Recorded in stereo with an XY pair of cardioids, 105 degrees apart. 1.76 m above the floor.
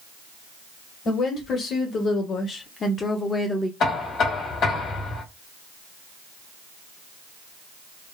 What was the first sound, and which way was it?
A woman speaking, 60° left.